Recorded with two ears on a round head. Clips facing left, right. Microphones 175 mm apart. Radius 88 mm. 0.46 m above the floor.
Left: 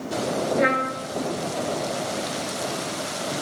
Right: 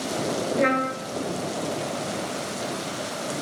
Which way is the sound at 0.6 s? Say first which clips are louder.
Even; 5° left (ahead or behind).